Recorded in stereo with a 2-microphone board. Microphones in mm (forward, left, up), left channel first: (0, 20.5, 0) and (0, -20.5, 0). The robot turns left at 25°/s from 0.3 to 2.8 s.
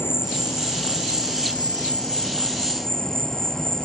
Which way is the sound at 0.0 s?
75° left.